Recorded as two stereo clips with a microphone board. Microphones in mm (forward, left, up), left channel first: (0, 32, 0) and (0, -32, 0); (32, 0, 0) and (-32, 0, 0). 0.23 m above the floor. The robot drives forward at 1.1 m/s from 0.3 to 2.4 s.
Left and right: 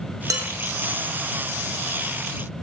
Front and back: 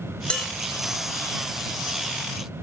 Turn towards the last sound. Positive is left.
turn(degrees=-125)